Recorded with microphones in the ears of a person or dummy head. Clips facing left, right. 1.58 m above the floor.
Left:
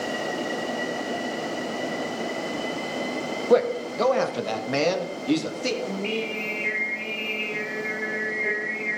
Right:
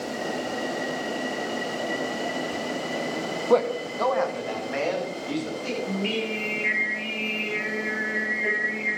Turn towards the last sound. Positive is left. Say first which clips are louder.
# right 1 dB
turn(degrees=-10)  # may be behind; listen again after turning